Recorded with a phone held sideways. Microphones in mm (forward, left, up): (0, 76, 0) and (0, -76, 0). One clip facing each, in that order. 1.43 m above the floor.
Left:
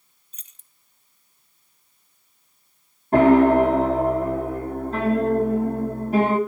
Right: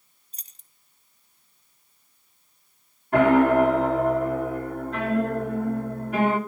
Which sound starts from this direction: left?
A piano, at 3.1 s.